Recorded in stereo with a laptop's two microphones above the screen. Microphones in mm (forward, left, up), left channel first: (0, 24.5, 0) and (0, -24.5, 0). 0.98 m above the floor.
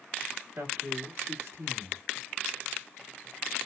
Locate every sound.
0.6 s a man speaking: 70° right (ahead or behind), 1.8 m